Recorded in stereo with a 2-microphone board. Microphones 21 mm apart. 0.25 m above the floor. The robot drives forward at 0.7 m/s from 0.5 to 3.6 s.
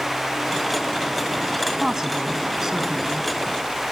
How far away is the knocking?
No knocking in this recording.